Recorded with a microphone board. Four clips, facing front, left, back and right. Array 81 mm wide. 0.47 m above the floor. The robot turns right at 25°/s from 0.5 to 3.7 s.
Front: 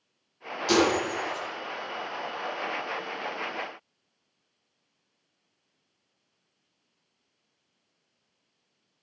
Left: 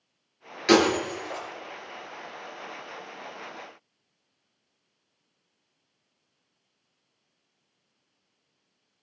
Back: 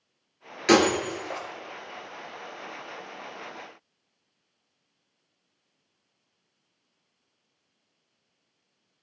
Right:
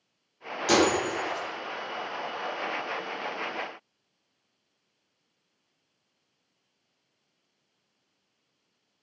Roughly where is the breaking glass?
Behind left.